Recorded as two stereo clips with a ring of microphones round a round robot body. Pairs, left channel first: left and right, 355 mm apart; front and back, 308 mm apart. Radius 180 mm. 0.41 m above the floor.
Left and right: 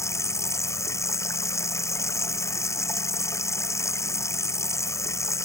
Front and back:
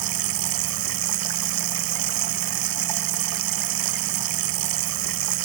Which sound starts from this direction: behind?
Running water, at 0.0 s.